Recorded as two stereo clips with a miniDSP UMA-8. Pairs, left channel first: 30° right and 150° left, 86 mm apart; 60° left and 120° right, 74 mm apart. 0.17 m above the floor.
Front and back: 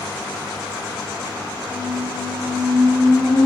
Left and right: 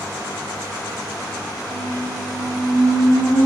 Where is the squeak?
85° right, 8.5 m.